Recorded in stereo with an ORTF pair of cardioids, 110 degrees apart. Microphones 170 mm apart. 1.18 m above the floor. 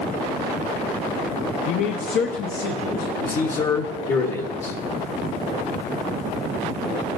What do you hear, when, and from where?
1.7 s a man speaking: 50° left, 0.6 m; by 3.1 s 80° left, 1.3 m
3.2 s a man speaking: 55° left, 1.3 m